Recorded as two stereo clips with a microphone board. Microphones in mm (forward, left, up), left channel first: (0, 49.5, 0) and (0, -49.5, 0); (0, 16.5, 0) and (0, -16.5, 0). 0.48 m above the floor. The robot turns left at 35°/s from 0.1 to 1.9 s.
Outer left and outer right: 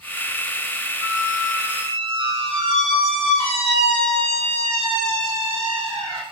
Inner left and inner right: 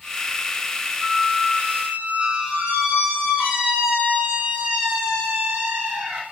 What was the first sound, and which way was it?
A squeak, 40° right.